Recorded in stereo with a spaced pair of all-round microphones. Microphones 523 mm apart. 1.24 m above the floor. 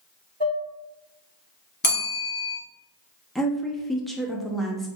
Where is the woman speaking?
Centre (ahead or behind), 0.5 m.